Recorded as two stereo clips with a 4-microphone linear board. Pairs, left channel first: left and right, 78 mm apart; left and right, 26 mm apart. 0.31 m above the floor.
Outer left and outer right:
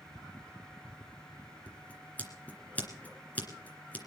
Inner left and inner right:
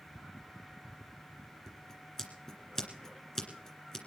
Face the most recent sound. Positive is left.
turn(degrees=20)  # may be behind; listen again after turning